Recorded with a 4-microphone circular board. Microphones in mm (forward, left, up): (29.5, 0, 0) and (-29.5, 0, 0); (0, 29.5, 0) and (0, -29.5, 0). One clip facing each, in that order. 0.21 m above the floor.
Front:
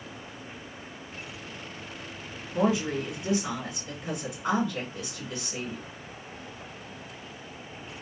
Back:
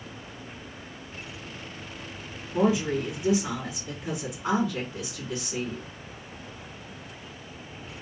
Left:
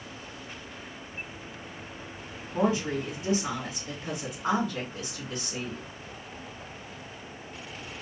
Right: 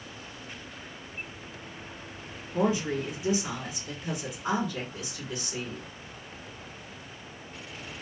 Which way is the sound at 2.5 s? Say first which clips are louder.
Back 2 dB, even; 105° left.